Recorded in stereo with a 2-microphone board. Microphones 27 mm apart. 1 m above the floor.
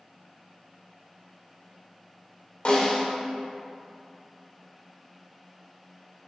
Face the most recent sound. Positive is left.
turn(degrees=55)  # may be behind; listen again after turning